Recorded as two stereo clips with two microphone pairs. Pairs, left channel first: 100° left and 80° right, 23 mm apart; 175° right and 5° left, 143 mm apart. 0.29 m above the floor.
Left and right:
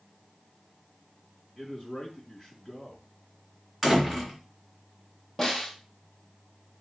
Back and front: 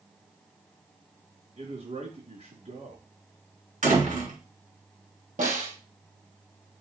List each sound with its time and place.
1.6 s a man speaking: 30° left, 2.5 m
3.8 s a door slam: 5° right, 2.5 m
5.4 s a snare drum: 25° left, 2.5 m